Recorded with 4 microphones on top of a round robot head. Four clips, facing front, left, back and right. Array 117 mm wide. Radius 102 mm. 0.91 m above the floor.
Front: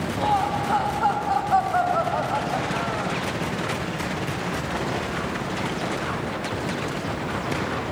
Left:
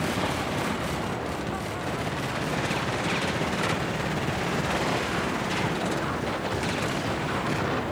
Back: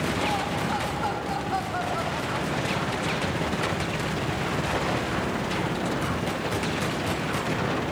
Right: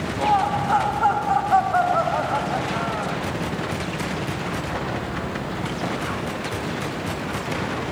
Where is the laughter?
65° right; by 3.2 s 50° right.